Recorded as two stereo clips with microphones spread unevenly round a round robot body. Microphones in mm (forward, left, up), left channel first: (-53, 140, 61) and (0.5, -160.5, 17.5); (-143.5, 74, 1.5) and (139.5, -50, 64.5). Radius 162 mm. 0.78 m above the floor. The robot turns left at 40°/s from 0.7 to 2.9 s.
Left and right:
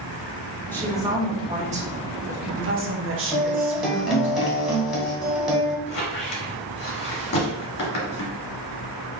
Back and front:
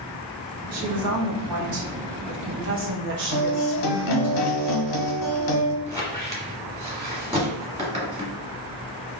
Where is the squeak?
50° left, 1.8 m.